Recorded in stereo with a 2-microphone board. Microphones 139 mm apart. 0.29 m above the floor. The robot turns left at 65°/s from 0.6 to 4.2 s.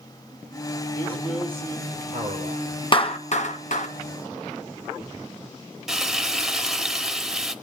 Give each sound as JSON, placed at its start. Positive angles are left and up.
{"t": 0.9, "sound": "a man speaking", "azimuth_deg": 25, "distance_m": 7.5}
{"t": 2.9, "sound": "a clap", "side_deg": 35, "distance_m": 1.7}
{"t": 5.9, "sound": "frying", "side_deg": -5, "distance_m": 1.3}